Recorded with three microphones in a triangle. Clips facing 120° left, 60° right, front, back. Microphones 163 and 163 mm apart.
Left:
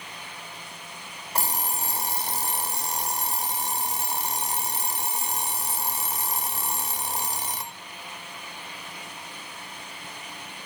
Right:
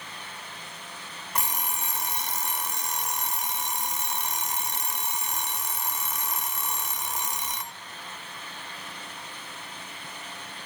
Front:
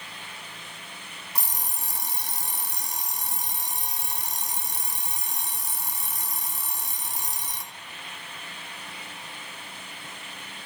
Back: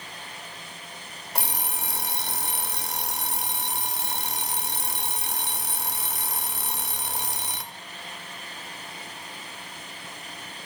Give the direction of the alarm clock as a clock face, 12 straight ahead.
6 o'clock.